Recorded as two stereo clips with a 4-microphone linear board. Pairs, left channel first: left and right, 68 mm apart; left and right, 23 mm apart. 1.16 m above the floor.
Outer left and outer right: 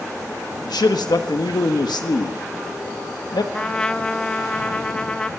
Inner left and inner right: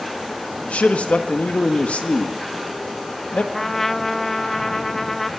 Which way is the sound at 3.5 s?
15° left (ahead or behind).